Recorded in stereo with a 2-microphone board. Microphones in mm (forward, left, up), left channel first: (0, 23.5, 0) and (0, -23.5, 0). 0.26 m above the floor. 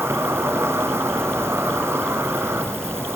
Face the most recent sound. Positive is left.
turn(degrees=-65)  # may be behind; listen again after turning